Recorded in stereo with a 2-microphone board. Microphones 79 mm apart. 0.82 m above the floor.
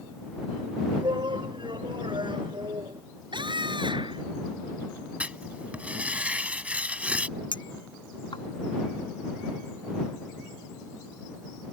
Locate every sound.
1.0 s a shout: 80° right; by 3.0 s 85° right
3.3 s a scream: 85° right
5.2 s writing: 15° right (ahead or behind)
7.5 s a clink: 85° left